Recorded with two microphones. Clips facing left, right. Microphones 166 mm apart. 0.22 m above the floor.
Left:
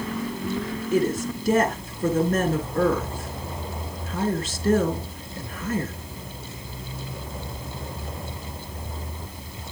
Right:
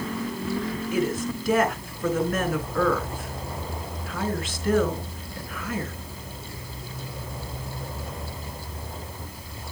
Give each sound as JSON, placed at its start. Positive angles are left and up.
{"t": 0.9, "sound": "a woman speaking", "side_deg": 25, "distance_m": 3.0}